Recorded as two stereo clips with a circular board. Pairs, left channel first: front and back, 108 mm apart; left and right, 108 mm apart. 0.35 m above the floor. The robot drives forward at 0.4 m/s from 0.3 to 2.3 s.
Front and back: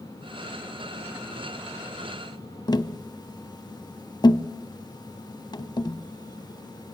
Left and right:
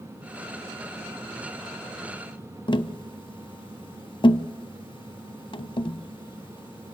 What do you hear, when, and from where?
2.7 s tapping: 50° left, 0.6 m